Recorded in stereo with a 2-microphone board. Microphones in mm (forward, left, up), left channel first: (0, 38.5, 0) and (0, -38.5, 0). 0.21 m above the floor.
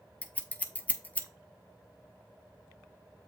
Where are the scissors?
20° left (ahead or behind), 0.5 m.